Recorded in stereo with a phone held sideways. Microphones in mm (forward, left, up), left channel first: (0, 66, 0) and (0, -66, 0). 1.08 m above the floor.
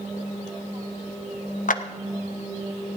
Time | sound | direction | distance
1.7 | a clap | 80° left | 0.6 m